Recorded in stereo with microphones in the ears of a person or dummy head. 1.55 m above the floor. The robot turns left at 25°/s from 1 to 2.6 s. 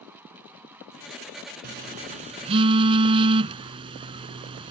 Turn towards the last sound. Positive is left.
turn(degrees=-25)  # may be behind; listen again after turning